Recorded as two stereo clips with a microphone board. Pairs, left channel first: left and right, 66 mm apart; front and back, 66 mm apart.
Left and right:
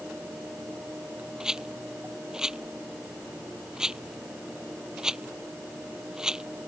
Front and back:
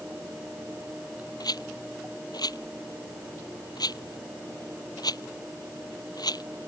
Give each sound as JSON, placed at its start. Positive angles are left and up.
{"t": 1.4, "sound": "a rattle", "azimuth_deg": -10}